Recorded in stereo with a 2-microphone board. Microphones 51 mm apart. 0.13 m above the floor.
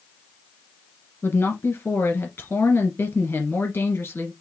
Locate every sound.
1.2 s a woman speaking: 50° left (ahead or behind), 1.8 m